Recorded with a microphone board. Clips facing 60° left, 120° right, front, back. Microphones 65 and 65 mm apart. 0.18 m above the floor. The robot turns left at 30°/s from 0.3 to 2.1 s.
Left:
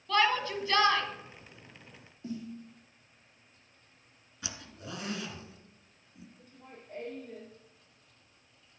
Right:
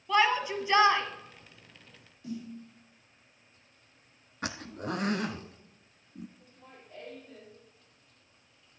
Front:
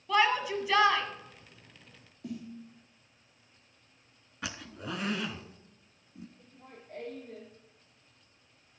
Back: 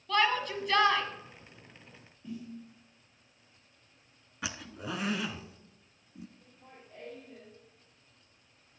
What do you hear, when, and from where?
0.1 s a shout: 65° right, 1.4 m; by 1.0 s 85° right, 1.4 m
2.2 s a snare drum: 5° left, 3.5 m
4.4 s a zipper: 95° right, 0.7 m
6.4 s laughter: 25° left, 4 m